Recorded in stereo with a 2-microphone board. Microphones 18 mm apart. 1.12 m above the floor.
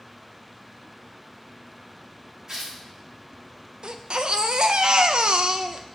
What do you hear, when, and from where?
2.5 s tearing paper: 45° right (ahead or behind), 2.0 m
3.8 s a baby crying: 70° right (ahead or behind), 0.5 m